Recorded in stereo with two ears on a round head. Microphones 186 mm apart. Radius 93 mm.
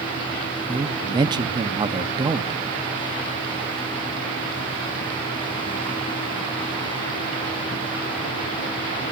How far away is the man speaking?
About 0.9 m.